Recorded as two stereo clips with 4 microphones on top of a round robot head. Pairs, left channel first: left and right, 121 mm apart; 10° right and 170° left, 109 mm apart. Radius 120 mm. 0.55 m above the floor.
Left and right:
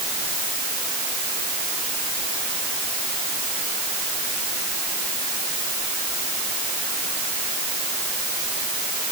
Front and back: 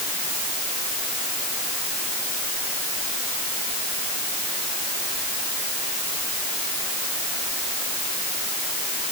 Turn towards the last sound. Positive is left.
No sound to turn to.